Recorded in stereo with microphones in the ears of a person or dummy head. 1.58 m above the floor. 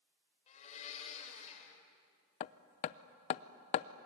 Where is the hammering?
35° left (ahead or behind), 0.5 m.